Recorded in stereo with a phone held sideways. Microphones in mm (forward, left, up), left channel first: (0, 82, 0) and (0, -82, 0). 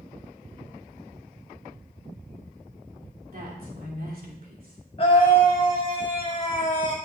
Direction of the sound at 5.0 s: 35° left (ahead or behind).